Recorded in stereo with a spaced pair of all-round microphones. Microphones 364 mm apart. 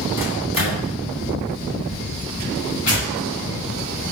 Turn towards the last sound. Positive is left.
turn(degrees=-50)  # may be behind; listen again after turning